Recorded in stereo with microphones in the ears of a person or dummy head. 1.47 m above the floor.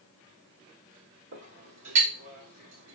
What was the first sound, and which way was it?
A clink, 65° right (ahead or behind).